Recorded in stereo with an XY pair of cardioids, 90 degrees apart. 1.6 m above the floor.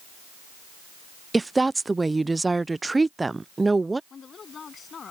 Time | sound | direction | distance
1.3 | a woman speaking | 20° right | ?
4.1 | a woman speaking | 50° left | ?